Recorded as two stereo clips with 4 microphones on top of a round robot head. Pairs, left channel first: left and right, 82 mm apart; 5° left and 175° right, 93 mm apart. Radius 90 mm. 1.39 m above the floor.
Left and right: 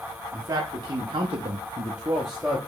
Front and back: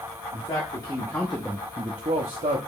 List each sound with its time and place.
0.3 s a man speaking: 45° right, 1.2 m; by 2.6 s 175° right, 0.8 m